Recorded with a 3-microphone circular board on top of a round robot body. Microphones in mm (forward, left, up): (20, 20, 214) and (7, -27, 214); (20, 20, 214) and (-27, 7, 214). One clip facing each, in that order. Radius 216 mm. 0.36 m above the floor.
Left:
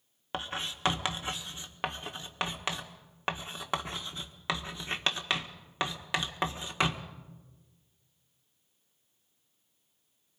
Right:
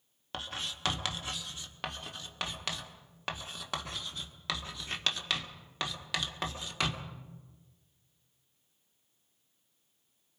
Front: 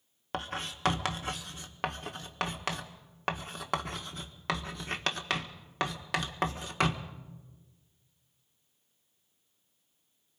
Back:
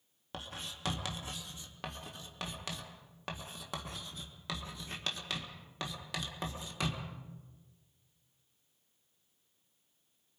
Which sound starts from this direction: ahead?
Writing, at 0.3 s.